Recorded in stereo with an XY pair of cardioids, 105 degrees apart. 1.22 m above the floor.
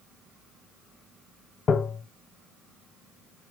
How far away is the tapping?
About 1.1 m.